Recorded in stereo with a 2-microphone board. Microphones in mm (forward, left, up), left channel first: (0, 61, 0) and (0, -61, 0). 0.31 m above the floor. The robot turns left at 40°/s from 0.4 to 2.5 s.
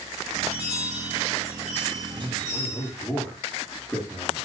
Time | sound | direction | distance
0.5 | a chime | 70° right | 8 m
2.1 | a man speaking | 10° right (ahead or behind) | 8.5 m